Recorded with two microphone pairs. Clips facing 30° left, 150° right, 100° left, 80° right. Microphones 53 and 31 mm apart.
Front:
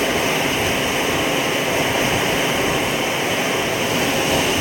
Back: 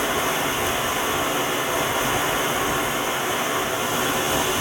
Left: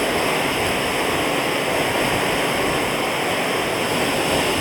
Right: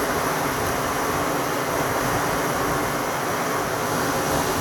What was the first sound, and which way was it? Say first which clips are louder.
Running water: front 4 dB, left 3 dB; 65° left.